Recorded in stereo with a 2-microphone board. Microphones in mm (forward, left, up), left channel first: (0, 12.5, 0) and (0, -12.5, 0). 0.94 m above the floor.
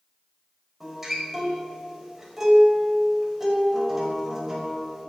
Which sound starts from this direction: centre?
A guitar, at 0.8 s.